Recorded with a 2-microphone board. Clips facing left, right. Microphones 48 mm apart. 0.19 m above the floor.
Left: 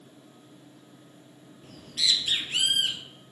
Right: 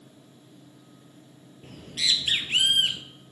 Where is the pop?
I don't hear a pop.